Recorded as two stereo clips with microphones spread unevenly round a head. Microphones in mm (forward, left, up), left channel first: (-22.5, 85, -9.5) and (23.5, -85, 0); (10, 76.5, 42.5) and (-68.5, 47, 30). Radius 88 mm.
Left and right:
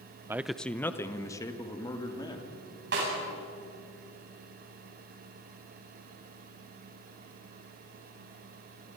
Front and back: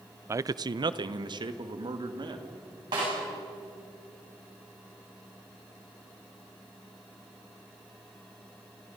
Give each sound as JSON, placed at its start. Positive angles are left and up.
{"t": 0.3, "sound": "a man speaking", "azimuth_deg": -150, "distance_m": 0.5}
{"t": 2.9, "sound": "a snare drum", "azimuth_deg": -105, "distance_m": 9.5}